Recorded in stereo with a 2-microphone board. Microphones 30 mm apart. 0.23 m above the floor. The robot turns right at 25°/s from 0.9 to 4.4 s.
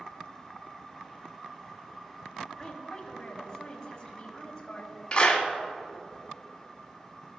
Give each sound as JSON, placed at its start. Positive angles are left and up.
{"t": 2.6, "sound": "a woman speaking", "side_deg": 25, "distance_m": 1.1}
{"t": 5.1, "sound": "a clap", "side_deg": 30, "distance_m": 1.2}